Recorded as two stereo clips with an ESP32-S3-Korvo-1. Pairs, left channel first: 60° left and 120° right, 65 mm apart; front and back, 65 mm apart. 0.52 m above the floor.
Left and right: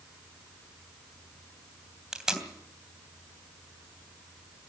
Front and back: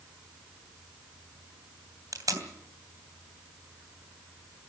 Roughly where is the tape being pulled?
Behind.